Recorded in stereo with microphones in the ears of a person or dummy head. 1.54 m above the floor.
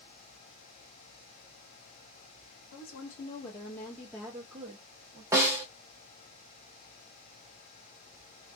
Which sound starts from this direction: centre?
A snare drum, at 5.3 s.